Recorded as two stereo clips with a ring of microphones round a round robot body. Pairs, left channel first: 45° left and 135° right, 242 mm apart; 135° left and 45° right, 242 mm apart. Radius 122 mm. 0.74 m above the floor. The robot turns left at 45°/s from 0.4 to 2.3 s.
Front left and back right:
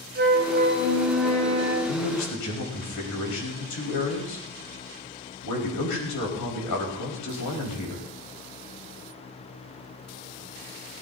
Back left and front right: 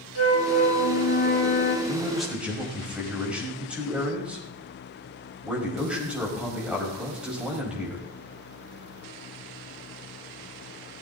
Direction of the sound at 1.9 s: 60° left.